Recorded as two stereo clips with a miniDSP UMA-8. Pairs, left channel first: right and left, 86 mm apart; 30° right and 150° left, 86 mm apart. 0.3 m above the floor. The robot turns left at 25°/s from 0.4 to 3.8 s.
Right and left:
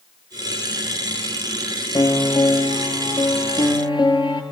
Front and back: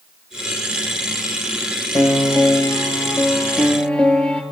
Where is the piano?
60° right, 1.8 m; by 4.4 s 105° right, 1.8 m.